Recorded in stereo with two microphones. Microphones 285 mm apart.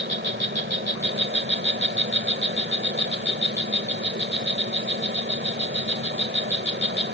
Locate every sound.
0.0 s an insect: 40° right (ahead or behind)